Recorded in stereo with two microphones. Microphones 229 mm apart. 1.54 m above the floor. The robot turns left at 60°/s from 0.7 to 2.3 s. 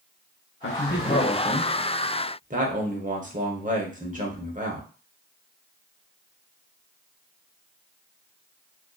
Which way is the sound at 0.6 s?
60° left.